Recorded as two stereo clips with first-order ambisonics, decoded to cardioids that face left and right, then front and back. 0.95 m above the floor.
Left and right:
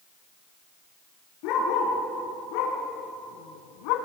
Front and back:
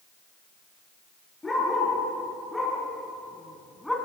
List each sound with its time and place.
1.4 s a dog barking: 80° left, 5 m; by 4.0 s 90° left, 3 m